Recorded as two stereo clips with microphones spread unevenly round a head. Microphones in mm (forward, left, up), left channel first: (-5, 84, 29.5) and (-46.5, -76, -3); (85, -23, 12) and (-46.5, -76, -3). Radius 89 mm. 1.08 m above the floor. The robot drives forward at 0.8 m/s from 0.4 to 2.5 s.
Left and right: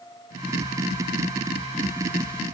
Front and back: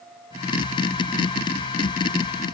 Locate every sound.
Only background noise.